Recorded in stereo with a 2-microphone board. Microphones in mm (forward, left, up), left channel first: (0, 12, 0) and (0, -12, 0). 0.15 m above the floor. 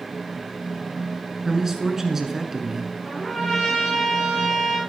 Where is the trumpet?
5° right (ahead or behind), 10 m.